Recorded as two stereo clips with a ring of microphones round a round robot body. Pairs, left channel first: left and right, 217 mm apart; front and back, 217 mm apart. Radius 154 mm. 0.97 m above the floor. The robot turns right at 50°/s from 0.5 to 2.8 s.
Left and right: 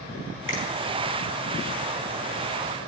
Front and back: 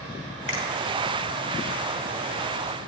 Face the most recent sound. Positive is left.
turn(degrees=150)